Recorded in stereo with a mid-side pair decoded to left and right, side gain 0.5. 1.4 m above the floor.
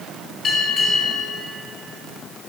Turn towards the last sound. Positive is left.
turn(degrees=65)